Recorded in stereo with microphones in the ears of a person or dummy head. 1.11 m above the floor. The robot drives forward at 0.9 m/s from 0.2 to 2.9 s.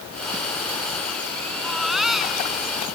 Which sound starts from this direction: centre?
A baby crying, at 1.6 s.